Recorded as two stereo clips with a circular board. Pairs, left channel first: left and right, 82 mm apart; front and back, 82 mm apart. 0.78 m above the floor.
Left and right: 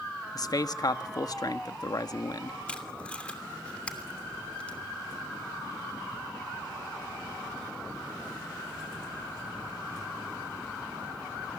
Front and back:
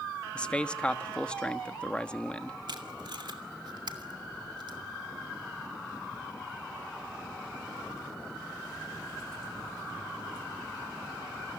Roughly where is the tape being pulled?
Behind.